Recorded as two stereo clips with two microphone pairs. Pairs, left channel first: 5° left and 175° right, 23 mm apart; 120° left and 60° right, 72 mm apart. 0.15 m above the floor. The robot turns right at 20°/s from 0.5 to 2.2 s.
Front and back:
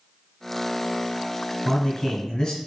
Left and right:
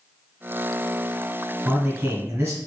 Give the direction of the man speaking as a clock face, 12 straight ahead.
1 o'clock.